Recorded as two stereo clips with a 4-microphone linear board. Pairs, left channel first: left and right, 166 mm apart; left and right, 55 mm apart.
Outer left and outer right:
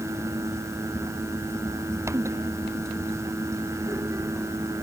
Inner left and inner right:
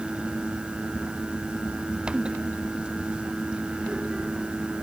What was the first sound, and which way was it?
Only background noise.